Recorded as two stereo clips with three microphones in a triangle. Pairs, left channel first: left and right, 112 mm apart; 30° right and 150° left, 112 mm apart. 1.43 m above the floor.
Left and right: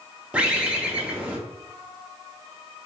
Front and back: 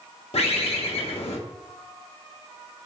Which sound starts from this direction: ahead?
A bird, at 0.3 s.